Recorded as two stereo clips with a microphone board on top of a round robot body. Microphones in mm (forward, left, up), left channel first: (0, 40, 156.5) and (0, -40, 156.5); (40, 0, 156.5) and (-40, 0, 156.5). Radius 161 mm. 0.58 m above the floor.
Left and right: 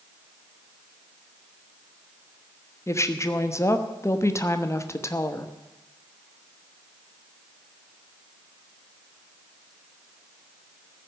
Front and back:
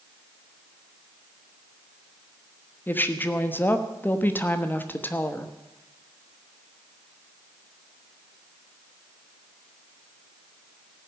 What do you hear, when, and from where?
2.9 s a woman speaking: 55° left, 1.3 m